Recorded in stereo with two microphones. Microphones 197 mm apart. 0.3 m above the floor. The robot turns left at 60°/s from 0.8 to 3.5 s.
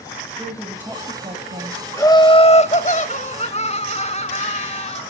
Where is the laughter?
155° left, 1.1 m; by 5.0 s 65° left, 1.1 m.